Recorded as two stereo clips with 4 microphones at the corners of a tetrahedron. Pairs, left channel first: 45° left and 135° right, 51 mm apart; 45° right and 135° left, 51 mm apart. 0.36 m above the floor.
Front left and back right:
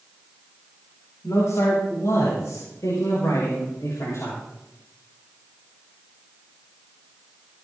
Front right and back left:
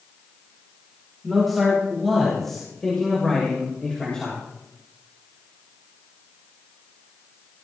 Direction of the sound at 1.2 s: 45° left.